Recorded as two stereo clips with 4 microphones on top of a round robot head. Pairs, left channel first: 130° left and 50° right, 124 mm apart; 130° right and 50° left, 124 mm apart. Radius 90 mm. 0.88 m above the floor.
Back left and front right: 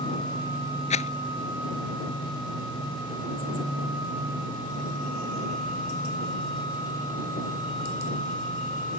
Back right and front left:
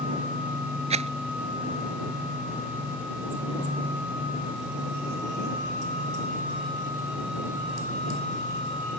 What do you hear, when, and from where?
0.9 s a rattle: 90° left